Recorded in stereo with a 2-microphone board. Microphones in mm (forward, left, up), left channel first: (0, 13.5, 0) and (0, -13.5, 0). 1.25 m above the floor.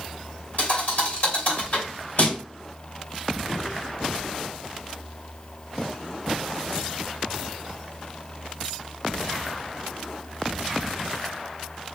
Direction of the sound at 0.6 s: 75° left (ahead or behind).